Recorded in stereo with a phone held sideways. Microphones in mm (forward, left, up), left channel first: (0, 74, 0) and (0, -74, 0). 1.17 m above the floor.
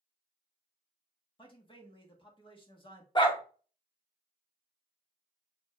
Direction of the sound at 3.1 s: 30° left (ahead or behind).